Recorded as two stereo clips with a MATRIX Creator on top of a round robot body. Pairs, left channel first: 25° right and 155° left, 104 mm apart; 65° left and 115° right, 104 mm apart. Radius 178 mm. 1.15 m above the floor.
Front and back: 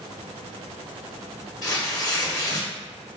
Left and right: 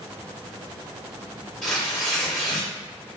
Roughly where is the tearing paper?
Ahead.